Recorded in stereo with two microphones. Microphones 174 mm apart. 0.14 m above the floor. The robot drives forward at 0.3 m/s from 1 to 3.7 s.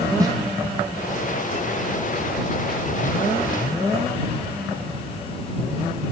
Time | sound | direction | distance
0.2 | a snare drum | 20° right (ahead or behind) | 0.7 m